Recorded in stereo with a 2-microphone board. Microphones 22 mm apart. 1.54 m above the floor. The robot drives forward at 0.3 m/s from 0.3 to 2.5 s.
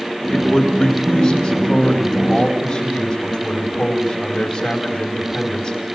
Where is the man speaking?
25° left (ahead or behind), 8.5 m; by 5.7 s 20° left (ahead or behind), 9 m.